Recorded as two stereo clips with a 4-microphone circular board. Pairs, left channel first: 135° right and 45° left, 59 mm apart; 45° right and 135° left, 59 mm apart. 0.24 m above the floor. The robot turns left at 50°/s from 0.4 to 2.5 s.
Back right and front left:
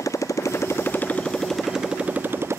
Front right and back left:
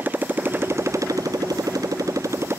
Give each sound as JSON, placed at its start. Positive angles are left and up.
{"t": 0.0, "sound": "a motorcycle", "azimuth_deg": -165}